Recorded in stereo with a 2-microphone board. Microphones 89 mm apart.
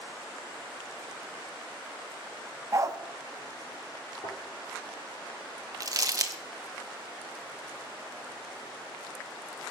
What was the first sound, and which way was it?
A dog barking, 40° right (ahead or behind).